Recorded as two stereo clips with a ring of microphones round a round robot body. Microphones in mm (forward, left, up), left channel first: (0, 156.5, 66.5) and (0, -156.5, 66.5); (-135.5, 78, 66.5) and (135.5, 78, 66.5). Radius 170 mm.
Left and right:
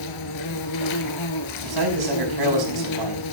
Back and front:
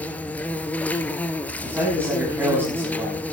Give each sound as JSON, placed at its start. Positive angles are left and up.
{"t": 0.0, "sound": "an insect", "azimuth_deg": 95, "distance_m": 1.2}
{"t": 1.6, "sound": "a man speaking", "azimuth_deg": -85, "distance_m": 5.5}